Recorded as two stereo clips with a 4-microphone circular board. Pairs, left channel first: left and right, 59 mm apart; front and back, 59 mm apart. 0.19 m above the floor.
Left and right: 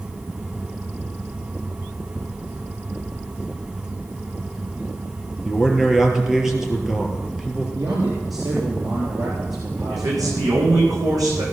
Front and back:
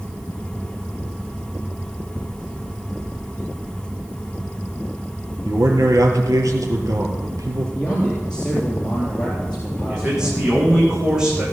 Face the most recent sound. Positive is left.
turn(degrees=-100)